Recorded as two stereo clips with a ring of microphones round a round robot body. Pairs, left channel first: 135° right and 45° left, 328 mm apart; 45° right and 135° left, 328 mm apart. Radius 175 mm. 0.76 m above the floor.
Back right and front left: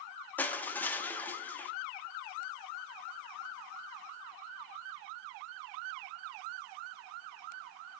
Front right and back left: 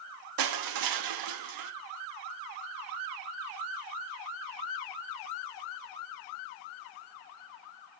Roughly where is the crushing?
Behind left.